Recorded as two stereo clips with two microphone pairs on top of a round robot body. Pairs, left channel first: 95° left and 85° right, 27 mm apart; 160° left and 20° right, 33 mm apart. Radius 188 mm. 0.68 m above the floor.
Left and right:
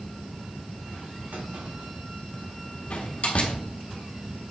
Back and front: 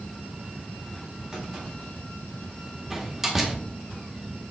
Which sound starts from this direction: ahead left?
A door slam, at 2.9 s.